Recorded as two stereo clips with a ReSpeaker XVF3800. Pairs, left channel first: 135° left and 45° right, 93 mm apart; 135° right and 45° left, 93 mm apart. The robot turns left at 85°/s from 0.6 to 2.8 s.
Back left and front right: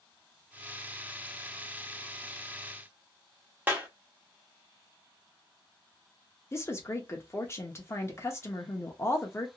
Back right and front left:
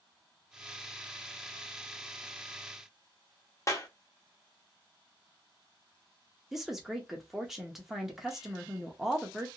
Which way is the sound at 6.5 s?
125° left.